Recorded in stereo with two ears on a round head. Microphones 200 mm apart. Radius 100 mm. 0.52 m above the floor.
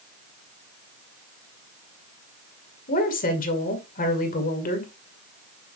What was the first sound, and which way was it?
A woman speaking, 35° left (ahead or behind).